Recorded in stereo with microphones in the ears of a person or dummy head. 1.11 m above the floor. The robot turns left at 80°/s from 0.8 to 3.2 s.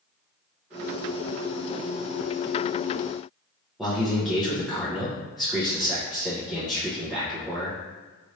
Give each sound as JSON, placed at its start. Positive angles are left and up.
{"t": 3.8, "sound": "a man speaking", "side_deg": 0, "distance_m": 0.9}